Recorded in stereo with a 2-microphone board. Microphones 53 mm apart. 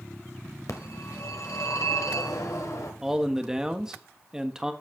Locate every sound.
0.7 s a phone ringing: 80° left, 1.7 m
3.0 s a man speaking: 10° right (ahead or behind), 1.0 m